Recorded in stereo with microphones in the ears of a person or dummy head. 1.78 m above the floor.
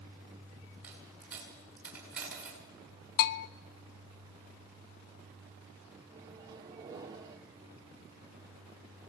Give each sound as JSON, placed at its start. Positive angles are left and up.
{"t": 0.8, "sound": "a dropped coin", "side_deg": -10, "distance_m": 8.5}
{"t": 3.2, "sound": "a bell", "side_deg": 50, "distance_m": 0.7}
{"t": 6.1, "sound": "a microwave", "side_deg": -20, "distance_m": 2.0}